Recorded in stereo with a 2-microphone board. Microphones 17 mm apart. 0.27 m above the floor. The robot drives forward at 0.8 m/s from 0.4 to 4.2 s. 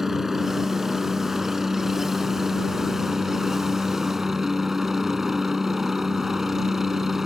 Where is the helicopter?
20° right (ahead or behind); by 7.3 s 25° right (ahead or behind).